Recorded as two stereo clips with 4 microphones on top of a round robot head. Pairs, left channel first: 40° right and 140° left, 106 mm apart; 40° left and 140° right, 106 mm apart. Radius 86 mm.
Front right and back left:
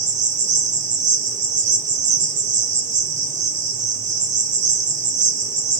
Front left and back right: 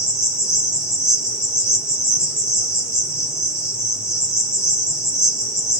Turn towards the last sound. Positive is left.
turn(degrees=135)